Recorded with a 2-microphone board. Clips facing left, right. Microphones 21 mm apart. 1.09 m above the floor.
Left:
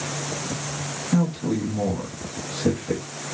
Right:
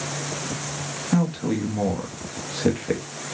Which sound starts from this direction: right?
A man speaking, at 1.1 s.